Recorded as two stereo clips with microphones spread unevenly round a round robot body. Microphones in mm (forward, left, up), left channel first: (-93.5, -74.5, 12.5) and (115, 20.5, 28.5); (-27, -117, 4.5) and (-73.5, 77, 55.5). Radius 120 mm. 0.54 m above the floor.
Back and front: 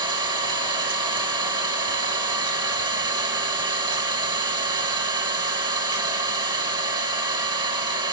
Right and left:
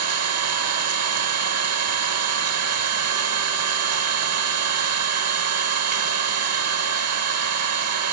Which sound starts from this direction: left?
An engine running, at 0.0 s.